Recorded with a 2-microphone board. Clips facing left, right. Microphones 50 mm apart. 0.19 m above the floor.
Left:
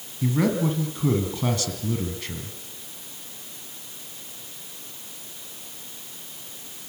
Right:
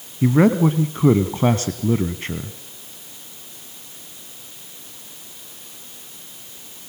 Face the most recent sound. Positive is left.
turn(degrees=-35)  # may be behind; listen again after turning